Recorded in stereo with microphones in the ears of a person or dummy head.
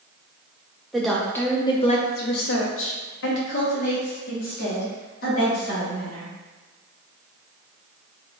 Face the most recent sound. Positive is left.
turn(degrees=45)  # may be behind; listen again after turning